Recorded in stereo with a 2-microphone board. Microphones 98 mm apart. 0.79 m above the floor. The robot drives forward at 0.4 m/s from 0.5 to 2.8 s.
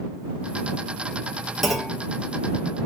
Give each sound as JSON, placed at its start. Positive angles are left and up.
{"t": 1.6, "sound": "a clunk", "side_deg": 5, "distance_m": 1.0}